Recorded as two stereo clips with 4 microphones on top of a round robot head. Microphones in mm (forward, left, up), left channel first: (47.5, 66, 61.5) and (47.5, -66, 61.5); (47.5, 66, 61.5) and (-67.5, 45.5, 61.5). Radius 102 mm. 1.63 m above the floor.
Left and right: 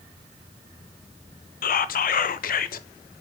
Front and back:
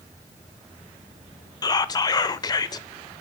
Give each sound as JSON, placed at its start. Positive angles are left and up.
{"t": 1.6, "sound": "whispering", "azimuth_deg": 70, "distance_m": 0.5}